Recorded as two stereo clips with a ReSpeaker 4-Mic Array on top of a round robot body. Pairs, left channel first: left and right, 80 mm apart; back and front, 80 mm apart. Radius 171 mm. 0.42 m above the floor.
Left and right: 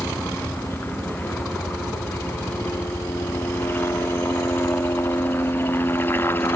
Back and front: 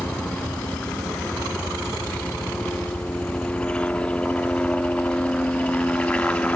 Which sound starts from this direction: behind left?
A helicopter, at 0.0 s.